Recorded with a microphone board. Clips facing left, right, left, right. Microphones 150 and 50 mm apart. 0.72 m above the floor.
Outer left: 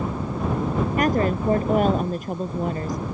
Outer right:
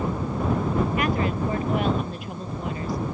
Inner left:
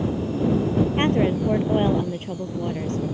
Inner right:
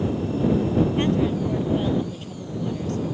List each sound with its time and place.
1.0 s a woman speaking: 45° left (ahead or behind)